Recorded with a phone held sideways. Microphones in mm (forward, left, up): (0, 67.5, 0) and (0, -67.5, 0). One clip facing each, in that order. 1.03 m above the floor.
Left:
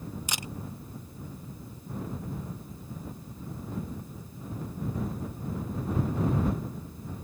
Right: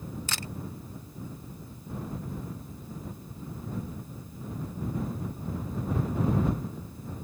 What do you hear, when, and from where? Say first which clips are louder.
0.3 s a camera shutter: even; 15° left (ahead or behind)